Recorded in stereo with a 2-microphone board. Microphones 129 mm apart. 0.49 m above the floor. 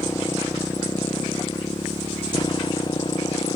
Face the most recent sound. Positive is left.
turn(degrees=40)  # may be behind; listen again after turning